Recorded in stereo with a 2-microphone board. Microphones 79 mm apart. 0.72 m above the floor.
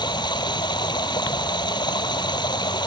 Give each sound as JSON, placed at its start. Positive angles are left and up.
{"t": 0.0, "sound": "running water", "side_deg": 70}